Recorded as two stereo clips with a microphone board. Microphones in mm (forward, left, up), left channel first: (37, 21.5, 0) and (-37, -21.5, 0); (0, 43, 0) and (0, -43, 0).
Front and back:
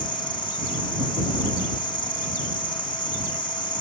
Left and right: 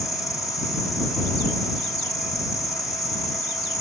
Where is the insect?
45° left.